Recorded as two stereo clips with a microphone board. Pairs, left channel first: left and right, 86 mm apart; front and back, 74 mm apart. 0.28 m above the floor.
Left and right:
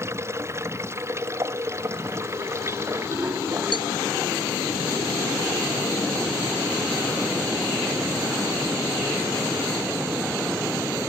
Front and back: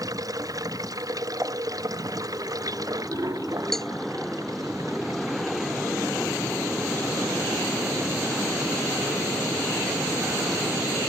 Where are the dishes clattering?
130° right.